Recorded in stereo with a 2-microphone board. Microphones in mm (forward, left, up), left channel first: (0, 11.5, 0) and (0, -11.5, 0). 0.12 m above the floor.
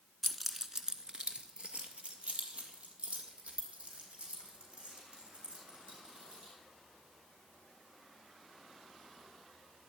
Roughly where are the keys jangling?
Centre.